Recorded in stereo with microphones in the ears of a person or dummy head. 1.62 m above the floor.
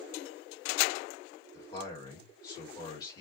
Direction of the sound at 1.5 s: 25° left (ahead or behind).